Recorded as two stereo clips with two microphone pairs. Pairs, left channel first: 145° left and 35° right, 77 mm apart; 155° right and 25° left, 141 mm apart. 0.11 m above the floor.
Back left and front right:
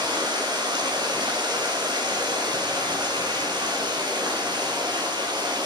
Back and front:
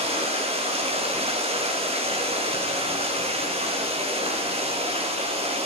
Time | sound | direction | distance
0.0 | running water | 20° right | 4.5 m